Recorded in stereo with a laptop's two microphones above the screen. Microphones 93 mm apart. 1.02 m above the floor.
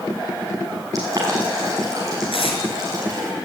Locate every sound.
0.9 s boiling: 35° right (ahead or behind), 6.5 m
2.3 s tape being pulled: 75° left (ahead or behind), 5 m